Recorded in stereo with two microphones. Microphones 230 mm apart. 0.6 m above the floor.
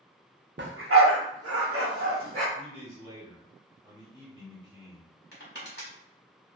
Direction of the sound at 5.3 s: 50° left (ahead or behind).